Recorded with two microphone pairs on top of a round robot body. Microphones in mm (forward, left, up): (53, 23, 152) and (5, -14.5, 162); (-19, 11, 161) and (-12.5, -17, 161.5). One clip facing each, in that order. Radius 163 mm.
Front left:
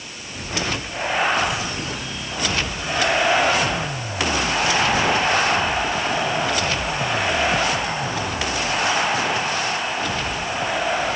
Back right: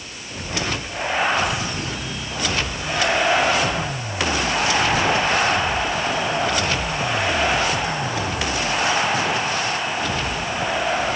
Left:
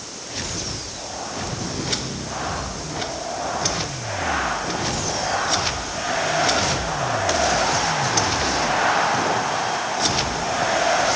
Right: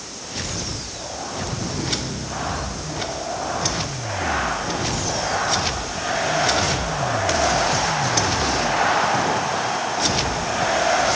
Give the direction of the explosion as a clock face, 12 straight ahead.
No explosion in this recording.